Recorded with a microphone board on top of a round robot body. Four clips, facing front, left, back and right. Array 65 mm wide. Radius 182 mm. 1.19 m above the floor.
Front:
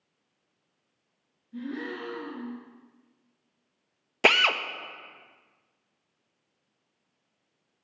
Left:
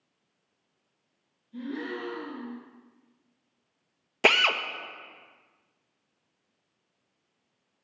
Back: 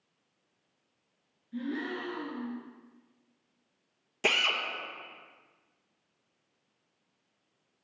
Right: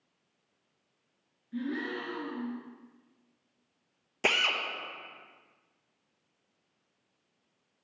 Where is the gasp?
105° right, 3.5 m.